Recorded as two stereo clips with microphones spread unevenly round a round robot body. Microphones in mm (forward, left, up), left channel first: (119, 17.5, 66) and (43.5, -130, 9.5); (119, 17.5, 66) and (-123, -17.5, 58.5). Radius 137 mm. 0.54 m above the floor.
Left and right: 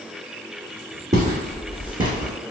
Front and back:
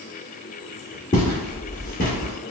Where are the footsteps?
65° right, 1.7 m; by 2.3 s 40° right, 1.4 m.